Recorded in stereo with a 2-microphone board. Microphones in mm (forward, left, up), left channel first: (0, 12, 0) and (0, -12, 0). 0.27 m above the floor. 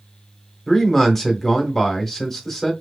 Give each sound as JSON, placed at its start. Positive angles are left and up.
{"t": 0.7, "sound": "a man speaking", "side_deg": 15, "distance_m": 1.3}